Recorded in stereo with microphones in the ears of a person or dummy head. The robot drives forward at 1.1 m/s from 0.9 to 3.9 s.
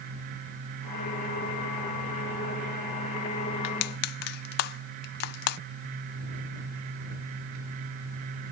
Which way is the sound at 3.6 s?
70° left (ahead or behind).